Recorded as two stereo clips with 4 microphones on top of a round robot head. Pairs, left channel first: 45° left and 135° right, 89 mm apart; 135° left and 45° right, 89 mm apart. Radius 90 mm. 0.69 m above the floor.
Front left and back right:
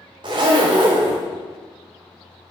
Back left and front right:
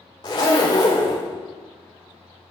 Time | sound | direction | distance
0.2 | a zipper | 175° right | 0.6 m